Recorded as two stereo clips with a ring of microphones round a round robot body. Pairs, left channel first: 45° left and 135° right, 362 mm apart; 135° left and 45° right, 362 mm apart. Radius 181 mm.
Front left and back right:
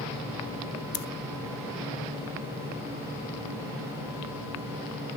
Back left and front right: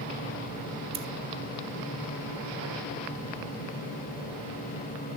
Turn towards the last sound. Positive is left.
turn(degrees=25)